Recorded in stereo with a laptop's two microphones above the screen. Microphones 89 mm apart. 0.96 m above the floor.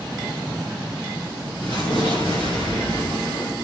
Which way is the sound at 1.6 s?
60° left (ahead or behind).